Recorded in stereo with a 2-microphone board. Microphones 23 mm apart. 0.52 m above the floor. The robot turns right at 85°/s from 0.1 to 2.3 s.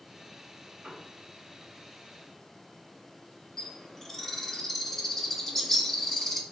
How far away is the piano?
About 1.1 m.